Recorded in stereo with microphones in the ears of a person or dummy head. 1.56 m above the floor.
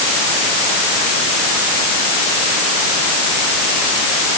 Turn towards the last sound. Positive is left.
No sound to turn to.